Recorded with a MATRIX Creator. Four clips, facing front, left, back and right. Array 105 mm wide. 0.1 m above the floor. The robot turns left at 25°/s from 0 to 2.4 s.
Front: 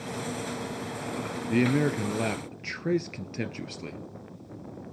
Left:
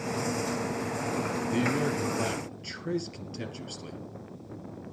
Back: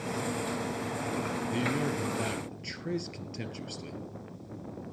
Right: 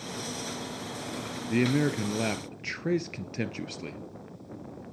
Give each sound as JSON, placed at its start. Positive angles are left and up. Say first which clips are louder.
{"t": 1.5, "sound": "a man speaking", "louder": "right 4 dB, front 9 dB", "azimuth_deg": -35, "distance_m": 1.7}